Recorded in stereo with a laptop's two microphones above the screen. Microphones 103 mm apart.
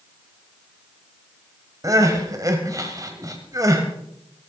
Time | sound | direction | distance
1.8 | crying | 35° right (ahead or behind) | 1.5 m